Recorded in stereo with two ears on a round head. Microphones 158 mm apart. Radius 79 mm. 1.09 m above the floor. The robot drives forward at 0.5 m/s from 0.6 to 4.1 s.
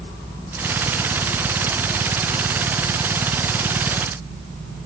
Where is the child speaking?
I don't hear a child speaking.